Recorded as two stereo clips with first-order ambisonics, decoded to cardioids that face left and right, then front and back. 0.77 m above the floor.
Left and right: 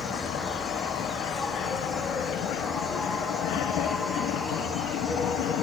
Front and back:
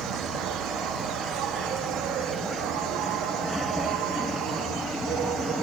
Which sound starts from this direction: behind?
An insect, at 0.0 s.